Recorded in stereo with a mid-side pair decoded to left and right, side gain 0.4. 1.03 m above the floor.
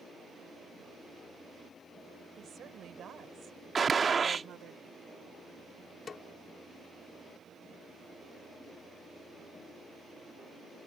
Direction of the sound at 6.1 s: 50° left.